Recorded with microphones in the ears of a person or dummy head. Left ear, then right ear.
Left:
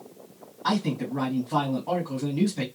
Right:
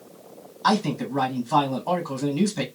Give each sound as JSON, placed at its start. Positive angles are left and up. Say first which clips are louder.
{"t": 0.6, "sound": "a man speaking", "louder": "right 5 dB", "side_deg": -80, "distance_m": 1.4}